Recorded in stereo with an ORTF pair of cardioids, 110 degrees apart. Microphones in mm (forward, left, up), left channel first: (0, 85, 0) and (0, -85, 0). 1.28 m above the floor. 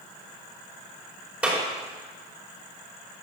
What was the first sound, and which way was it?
A clap, 10° right.